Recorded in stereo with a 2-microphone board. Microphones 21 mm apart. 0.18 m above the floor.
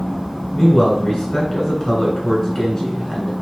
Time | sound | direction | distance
0.5 | a man speaking | 25° left (ahead or behind) | 2.5 m